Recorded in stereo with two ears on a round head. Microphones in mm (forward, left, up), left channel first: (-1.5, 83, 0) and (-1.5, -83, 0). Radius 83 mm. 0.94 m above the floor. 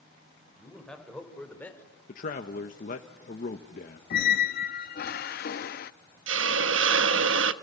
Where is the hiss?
75° right (ahead or behind), 1.2 m.